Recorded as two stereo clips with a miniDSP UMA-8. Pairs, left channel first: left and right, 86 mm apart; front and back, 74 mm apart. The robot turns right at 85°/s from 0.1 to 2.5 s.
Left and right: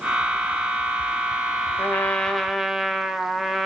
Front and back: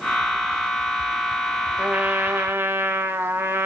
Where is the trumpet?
125° left, 0.7 m; by 3.7 s 175° right, 0.7 m.